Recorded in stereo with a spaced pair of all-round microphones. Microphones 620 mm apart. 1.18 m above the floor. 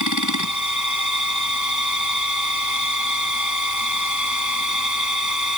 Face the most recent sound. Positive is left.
turn(degrees=30)  # may be behind; listen again after turning